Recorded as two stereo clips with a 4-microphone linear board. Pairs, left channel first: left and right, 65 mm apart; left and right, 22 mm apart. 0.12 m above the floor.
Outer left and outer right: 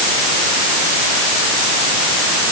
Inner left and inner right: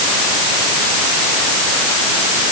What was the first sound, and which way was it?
Only background noise.